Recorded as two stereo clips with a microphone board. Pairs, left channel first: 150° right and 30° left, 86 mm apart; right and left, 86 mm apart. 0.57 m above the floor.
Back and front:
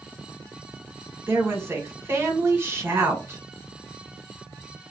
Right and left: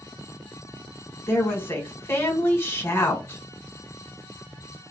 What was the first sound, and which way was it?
A woman speaking, 30° right.